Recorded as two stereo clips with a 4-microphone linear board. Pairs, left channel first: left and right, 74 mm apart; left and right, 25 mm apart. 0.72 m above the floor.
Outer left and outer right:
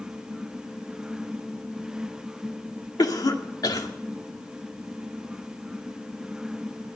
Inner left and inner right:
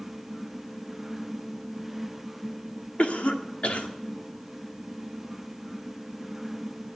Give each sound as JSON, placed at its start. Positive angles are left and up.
{"t": 3.0, "sound": "a cough", "side_deg": 60, "distance_m": 1.8}